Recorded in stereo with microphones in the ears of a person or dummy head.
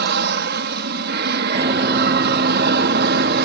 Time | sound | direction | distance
0.0 | an aircraft | 60° right (ahead or behind) | ?
1.6 | running footsteps | 30° right (ahead or behind) | ?